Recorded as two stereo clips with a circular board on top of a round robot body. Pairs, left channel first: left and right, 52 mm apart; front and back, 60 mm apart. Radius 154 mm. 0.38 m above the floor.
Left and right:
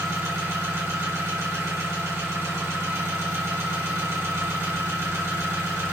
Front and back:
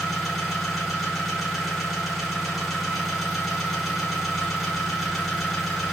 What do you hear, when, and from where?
0.0 s an engine running: 90° right, 1.3 m